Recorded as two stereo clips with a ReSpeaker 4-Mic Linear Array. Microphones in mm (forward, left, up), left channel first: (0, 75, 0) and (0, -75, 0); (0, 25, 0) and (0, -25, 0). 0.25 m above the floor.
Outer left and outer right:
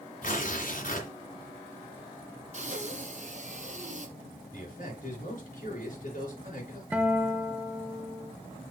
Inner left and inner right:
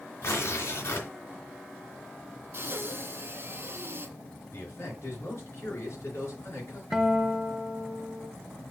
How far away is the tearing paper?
About 2.5 m.